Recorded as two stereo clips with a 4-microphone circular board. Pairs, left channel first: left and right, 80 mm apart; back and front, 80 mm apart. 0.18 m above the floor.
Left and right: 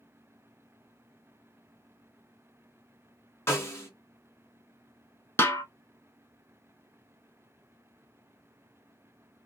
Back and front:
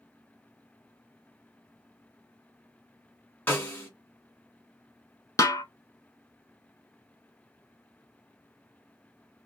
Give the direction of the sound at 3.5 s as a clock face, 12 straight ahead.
8 o'clock.